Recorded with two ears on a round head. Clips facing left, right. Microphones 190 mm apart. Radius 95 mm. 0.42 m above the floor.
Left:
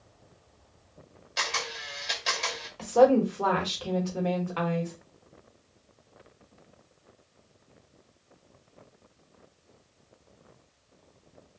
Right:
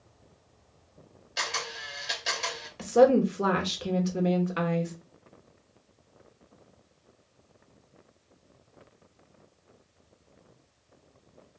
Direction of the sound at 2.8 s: 25° right (ahead or behind).